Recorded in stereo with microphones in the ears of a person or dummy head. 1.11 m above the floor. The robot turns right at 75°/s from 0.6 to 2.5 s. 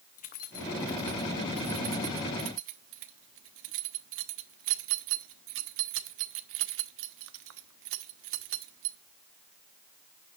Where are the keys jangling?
45° left (ahead or behind), 1.1 m; by 9.0 s 75° right (ahead or behind), 1.1 m.